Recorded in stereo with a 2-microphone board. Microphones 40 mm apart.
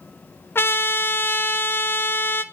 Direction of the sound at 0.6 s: 60° left (ahead or behind).